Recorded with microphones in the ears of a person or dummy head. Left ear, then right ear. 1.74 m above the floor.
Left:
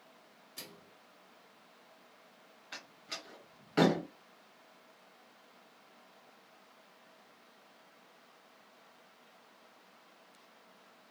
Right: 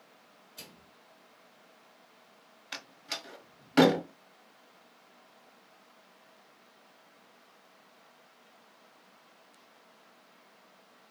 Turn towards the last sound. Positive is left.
turn(degrees=-20)  # may be behind; listen again after turning